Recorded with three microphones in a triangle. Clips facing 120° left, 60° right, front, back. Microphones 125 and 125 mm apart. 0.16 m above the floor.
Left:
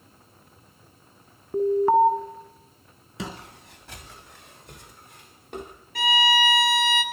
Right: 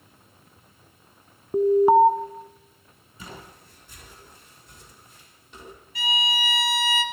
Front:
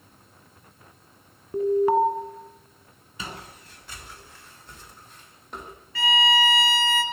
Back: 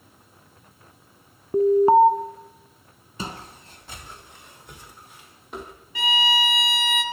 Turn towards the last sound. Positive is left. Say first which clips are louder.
# left 7 dB, front 2 dB
turn(degrees=110)